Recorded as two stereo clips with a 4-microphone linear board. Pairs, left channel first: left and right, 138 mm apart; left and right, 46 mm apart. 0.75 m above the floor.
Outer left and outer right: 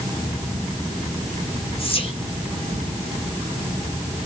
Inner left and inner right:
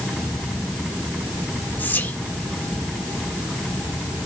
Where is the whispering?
40° left (ahead or behind), 1.9 m.